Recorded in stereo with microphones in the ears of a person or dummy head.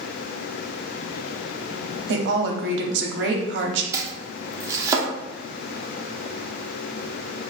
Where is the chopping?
20° right (ahead or behind), 0.7 m.